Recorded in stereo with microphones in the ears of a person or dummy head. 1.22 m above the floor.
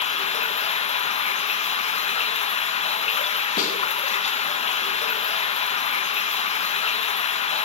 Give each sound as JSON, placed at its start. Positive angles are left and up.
{"t": 0.0, "sound": "running water", "side_deg": 40, "distance_m": 1.0}
{"t": 3.6, "sound": "a snare drum", "side_deg": 40, "distance_m": 5.5}